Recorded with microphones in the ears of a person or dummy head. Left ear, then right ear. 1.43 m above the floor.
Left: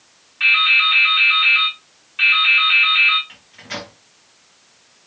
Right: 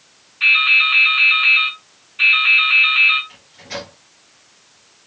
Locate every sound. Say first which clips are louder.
0.4 s dripping: right 1 dB; 45° left (ahead or behind), 2 m
3.3 s a microwave: even; 40° left (ahead or behind), 1.4 m